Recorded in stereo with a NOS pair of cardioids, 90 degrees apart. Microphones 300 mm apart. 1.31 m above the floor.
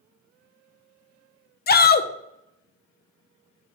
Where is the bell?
No bell in this recording.